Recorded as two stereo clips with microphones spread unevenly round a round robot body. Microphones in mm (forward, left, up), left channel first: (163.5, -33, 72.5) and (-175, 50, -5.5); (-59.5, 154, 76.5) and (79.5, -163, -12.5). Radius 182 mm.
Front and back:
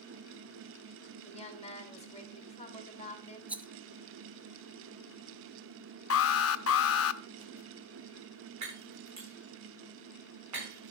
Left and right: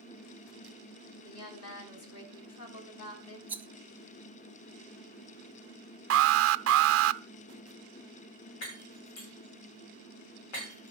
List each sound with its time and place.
1.2 s a woman speaking: 60° left, 3.5 m
3.5 s a rattle: 130° right, 0.8 m
6.1 s an alarm: 70° right, 0.6 m
8.6 s breaking glass: 120° left, 6.5 m